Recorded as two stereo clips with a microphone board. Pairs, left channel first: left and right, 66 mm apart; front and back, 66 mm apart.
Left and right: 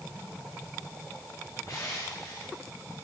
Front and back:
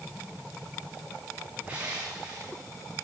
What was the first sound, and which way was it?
Crushing, 115° left.